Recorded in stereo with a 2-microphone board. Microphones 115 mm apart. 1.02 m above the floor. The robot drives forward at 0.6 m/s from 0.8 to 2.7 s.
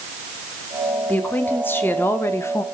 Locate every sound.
1.1 s a woman speaking: 15° left (ahead or behind), 2.5 m; by 2.6 s 25° left (ahead or behind), 1.4 m